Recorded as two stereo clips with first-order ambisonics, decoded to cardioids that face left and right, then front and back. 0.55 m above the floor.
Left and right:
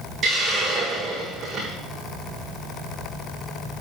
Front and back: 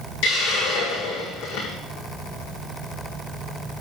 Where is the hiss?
25° right, 6.5 m.